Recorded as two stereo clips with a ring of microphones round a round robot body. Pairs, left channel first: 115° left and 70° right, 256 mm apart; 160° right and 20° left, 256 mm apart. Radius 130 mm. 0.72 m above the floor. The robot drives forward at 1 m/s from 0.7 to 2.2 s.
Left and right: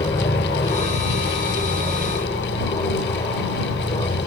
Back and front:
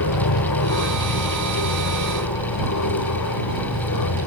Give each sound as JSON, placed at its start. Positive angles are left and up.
{"t": 0.0, "sound": "an aircraft", "azimuth_deg": -175}